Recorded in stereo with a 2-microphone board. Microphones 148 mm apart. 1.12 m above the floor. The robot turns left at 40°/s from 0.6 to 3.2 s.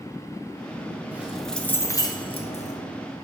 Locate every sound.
1.1 s keys jangling: 170° right, 0.9 m; by 2.8 s 125° left, 0.9 m